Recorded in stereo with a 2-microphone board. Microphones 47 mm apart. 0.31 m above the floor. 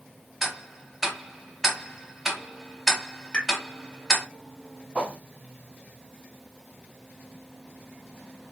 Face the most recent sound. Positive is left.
turn(degrees=-20)  # may be behind; listen again after turning